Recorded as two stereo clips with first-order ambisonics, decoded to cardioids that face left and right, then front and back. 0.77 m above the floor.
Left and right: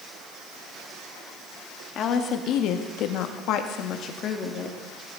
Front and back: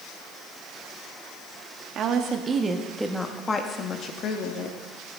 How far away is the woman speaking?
About 1.1 m.